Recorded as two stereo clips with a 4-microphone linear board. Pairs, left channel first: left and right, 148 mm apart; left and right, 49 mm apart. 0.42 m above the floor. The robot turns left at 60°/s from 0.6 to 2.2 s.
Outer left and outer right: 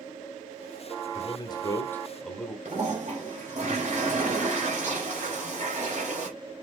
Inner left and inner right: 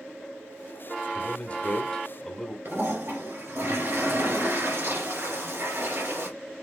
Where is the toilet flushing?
55° right (ahead or behind), 2.5 m.